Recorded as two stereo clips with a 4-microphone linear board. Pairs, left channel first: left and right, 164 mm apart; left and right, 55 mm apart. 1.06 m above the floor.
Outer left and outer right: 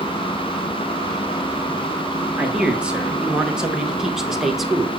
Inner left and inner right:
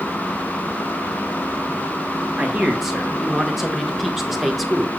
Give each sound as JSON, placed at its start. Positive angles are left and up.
{"t": 2.4, "sound": "a man speaking", "side_deg": -5, "distance_m": 2.5}